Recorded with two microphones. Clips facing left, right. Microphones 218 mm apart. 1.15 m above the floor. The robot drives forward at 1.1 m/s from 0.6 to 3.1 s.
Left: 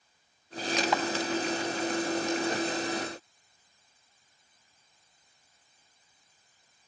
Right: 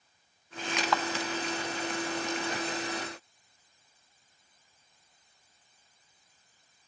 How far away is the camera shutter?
About 0.8 m.